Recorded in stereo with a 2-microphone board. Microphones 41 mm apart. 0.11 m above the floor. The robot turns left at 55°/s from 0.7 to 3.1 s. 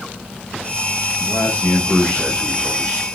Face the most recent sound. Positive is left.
turn(degrees=-45)